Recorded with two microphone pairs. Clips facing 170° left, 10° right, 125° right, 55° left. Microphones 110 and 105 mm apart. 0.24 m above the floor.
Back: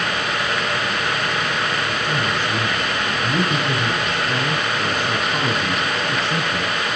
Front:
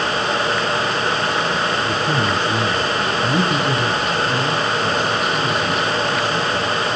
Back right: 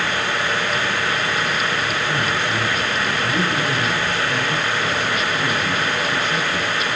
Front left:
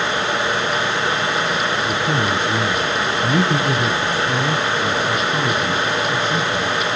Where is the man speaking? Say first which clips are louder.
Front 3 dB, front left 3 dB; 45° left, 3 m; by 7.0 s 120° left, 3.5 m.